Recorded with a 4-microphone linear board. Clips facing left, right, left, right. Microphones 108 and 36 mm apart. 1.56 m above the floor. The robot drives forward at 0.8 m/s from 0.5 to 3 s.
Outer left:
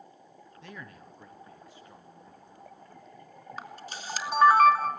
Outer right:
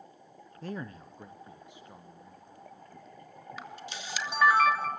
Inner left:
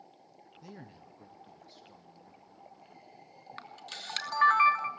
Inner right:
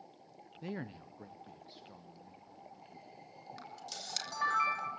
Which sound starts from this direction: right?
A man speaking, at 0.6 s.